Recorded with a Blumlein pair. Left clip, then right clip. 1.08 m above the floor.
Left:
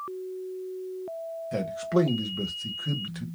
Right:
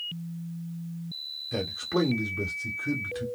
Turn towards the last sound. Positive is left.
turn(degrees=5)